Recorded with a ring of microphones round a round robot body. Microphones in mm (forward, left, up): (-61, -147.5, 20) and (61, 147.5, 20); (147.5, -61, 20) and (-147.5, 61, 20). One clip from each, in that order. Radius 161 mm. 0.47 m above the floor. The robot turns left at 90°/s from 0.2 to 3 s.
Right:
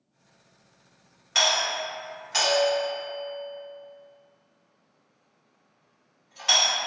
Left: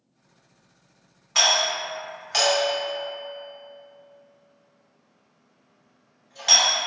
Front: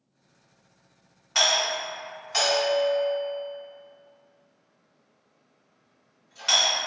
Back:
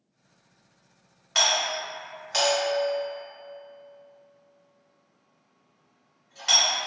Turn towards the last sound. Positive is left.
turn(degrees=90)